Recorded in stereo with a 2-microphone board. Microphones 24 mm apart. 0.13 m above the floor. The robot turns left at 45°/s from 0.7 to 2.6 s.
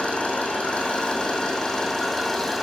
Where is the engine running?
75° left, 2.5 m; by 2.6 s 10° right, 2.5 m.